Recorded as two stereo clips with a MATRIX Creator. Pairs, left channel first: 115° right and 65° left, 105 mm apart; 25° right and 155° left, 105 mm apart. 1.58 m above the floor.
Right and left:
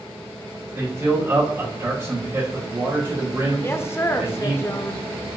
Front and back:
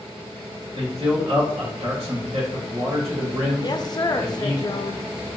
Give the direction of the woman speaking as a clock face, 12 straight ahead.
2 o'clock.